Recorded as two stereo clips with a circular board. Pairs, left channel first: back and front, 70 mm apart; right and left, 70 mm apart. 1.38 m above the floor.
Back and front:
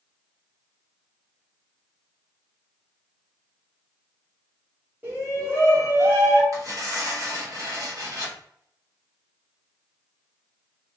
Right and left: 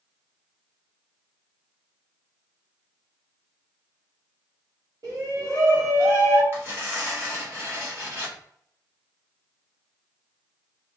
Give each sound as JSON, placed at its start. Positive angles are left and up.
{"t": 5.0, "sound": "a shout", "azimuth_deg": 60, "distance_m": 1.6}
{"t": 6.5, "sound": "tearing paper", "azimuth_deg": 35, "distance_m": 1.7}